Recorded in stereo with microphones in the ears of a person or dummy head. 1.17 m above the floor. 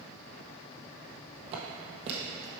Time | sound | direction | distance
1.5 | footsteps | 40° right (ahead or behind) | 1.7 m